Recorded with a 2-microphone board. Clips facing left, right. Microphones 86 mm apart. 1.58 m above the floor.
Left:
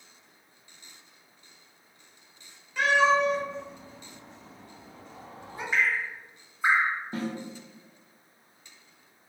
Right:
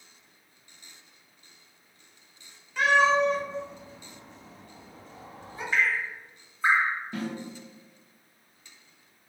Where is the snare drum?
35° left (ahead or behind), 0.6 m.